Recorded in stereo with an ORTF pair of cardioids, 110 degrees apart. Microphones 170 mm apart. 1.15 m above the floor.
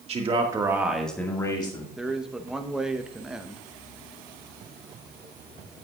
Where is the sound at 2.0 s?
5° right, 0.9 m.